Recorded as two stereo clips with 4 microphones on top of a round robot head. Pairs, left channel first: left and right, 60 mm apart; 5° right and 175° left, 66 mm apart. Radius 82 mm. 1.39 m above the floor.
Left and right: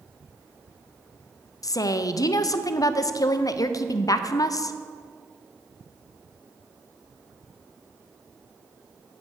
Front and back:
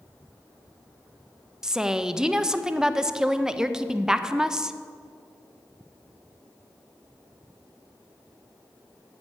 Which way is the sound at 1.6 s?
95° left.